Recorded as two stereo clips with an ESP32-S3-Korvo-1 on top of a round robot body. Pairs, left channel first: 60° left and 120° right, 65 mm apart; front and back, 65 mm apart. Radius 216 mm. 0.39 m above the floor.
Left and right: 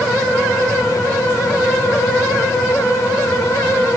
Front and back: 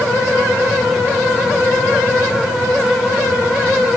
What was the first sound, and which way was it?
Only background noise.